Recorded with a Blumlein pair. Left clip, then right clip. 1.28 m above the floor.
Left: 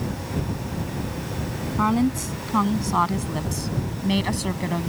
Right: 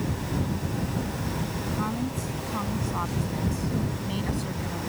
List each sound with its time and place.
1.8 s a woman speaking: 30° left